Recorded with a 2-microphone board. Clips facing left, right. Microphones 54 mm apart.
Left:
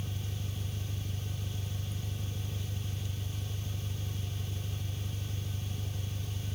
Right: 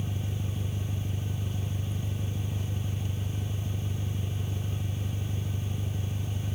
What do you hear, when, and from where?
0.0 s an engine running: 45° right (ahead or behind)